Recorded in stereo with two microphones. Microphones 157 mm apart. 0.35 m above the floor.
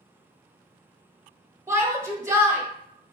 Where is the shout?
15° right (ahead or behind), 1.4 m.